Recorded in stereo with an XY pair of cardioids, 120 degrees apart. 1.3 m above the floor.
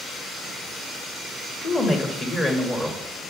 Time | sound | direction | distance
1.6 | a woman speaking | 30° left | 1.9 m